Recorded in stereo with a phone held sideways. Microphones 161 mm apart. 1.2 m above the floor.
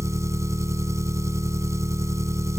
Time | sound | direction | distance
0.0 | an engine running | 20° right (ahead or behind) | ?